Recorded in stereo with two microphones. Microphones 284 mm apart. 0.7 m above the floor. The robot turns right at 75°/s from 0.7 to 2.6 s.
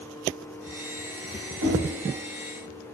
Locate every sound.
1.6 s knocking: 80° right, 4 m; by 1.8 s 75° right (ahead or behind), 4 m